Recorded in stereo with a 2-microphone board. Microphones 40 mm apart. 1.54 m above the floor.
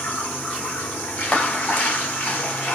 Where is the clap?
35° left (ahead or behind), 7.5 m.